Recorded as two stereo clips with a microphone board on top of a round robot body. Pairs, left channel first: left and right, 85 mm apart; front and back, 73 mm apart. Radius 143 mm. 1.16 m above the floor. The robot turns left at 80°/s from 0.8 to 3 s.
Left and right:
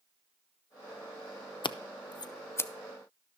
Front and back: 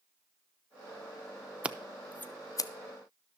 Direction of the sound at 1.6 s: 110° left.